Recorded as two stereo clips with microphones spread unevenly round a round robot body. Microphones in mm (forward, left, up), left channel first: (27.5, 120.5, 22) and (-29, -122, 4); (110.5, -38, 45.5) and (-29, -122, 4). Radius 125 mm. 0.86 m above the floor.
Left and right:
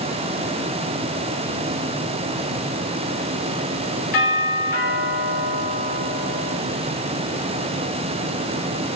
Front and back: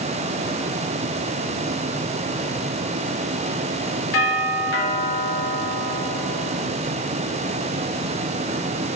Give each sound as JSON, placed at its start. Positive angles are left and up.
{"t": 4.1, "sound": "a doorbell", "azimuth_deg": 20, "distance_m": 3.0}